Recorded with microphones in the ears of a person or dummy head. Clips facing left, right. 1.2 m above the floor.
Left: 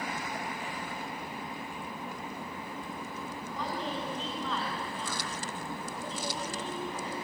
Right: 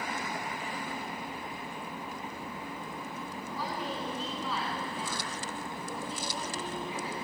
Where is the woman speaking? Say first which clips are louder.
Left 1 dB; 10° right (ahead or behind), 9.5 m.